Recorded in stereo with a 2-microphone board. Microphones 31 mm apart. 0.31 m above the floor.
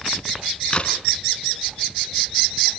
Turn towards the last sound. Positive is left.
turn(degrees=35)  # may be behind; listen again after turning